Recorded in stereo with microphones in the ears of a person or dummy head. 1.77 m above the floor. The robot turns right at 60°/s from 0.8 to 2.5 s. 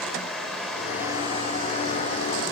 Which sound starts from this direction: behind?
Running water, at 0.0 s.